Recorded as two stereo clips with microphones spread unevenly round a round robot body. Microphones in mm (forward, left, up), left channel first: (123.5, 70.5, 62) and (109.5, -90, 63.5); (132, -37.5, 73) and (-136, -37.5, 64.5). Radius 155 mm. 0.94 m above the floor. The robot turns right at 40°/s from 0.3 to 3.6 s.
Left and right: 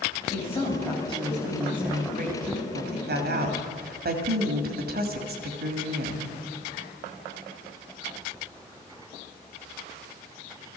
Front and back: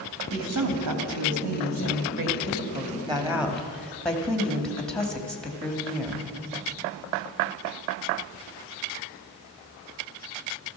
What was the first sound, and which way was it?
A woman speaking, 140° left.